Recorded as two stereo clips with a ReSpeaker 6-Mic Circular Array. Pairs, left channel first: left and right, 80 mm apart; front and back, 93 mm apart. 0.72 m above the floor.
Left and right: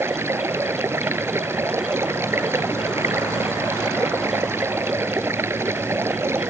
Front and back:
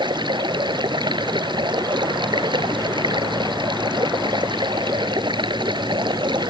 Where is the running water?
150° right.